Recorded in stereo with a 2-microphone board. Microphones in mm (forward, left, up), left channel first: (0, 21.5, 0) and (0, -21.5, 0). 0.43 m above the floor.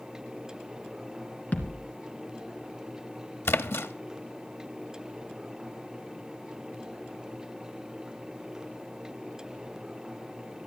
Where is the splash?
70° left (ahead or behind), 1.0 m.